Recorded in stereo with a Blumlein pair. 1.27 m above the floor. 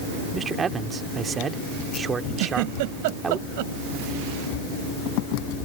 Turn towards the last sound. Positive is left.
turn(degrees=-50)